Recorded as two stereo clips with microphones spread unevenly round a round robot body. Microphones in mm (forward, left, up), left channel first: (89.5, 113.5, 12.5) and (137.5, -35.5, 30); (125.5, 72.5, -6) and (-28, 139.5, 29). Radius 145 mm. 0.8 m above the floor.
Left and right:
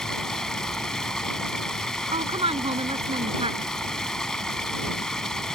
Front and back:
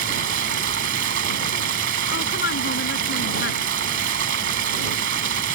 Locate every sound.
0.0 s running water: 165° right
2.1 s a woman speaking: 20° right